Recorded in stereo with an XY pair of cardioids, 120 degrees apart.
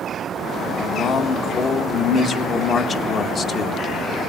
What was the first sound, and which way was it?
A man speaking, 45° left.